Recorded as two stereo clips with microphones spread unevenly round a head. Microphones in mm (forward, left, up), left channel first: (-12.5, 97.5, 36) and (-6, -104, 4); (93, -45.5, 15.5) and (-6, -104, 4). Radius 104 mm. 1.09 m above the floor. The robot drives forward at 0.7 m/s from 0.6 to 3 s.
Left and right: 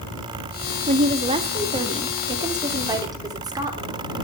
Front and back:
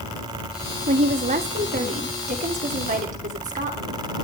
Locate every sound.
0.9 s a woman speaking: 145° right, 1.8 m; by 4.0 s 160° right, 3 m